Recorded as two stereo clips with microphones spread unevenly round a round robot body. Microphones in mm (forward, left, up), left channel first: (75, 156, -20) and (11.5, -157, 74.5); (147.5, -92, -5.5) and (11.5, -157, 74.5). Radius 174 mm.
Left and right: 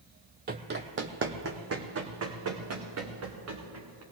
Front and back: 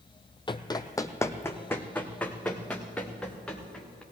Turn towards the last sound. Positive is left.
turn(degrees=-60)